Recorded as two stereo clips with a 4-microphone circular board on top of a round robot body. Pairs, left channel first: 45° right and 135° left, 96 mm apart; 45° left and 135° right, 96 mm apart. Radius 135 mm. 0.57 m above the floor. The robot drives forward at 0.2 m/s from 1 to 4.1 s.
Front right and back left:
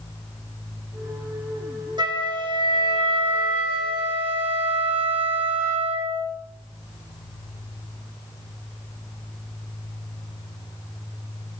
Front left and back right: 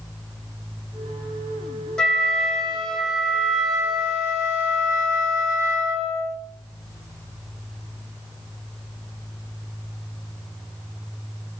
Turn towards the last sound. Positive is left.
turn(degrees=140)